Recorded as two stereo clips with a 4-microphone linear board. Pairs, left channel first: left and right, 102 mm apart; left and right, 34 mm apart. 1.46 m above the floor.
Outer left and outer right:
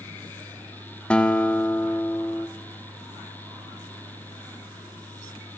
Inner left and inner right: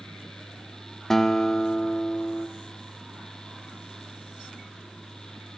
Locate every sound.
1.1 s a guitar: 10° left (ahead or behind), 1.4 m